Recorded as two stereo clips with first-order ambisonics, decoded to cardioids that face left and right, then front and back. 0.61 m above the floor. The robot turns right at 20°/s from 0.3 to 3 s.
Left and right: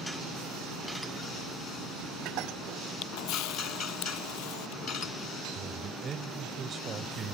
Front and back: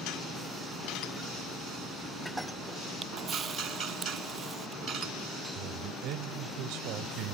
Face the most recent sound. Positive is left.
turn(degrees=-155)